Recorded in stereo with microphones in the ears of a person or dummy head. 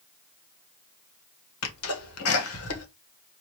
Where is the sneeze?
80° left, 1.8 m.